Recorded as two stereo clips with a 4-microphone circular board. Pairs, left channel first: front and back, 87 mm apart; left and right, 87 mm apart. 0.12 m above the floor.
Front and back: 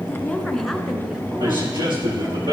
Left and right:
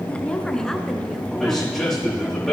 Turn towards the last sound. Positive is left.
turn(degrees=180)